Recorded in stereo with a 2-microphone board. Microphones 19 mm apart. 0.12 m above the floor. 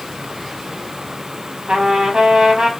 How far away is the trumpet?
About 1.0 m.